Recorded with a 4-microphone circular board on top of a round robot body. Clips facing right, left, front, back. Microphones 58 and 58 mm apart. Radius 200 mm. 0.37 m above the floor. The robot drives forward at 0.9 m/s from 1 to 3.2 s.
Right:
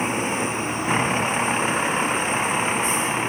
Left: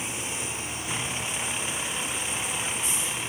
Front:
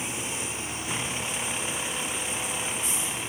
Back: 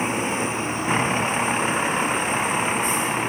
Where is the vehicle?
135° right; by 3.3 s 140° right.